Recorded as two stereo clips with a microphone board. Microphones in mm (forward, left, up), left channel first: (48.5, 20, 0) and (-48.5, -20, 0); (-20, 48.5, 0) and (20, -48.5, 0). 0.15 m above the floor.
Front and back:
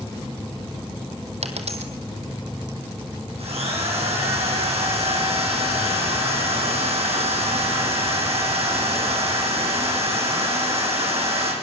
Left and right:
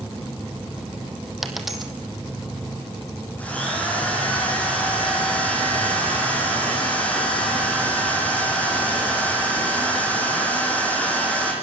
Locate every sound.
1.4 s a dropped coin: 155° right, 2.5 m
3.4 s a drill: 170° right, 7 m